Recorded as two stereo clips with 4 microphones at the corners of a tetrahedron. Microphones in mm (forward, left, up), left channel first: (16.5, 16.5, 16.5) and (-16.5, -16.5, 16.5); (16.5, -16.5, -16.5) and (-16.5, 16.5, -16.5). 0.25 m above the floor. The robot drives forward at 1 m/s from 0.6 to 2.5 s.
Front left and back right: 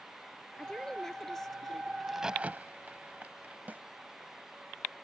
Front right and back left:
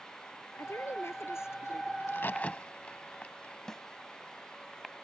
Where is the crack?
40° right; by 3.6 s 95° right.